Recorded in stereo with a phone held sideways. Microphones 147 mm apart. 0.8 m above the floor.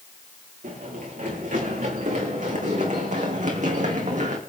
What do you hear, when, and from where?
0.6 s running footsteps: 65° right (ahead or behind), 5.5 m; by 4.4 s 60° right (ahead or behind), 3 m